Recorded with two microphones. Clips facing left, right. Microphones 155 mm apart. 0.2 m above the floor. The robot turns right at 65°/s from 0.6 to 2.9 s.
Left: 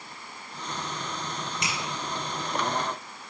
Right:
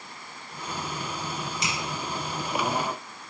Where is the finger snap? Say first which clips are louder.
Even; 55° left (ahead or behind), 2.5 m; by 1.8 s 60° left (ahead or behind), 2.5 m.